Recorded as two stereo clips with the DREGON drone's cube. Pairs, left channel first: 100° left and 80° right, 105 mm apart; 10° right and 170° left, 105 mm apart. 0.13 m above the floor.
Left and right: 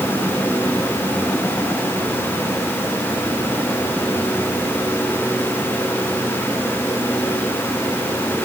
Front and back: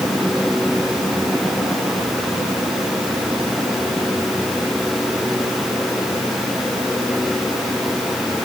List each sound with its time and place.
Only background noise.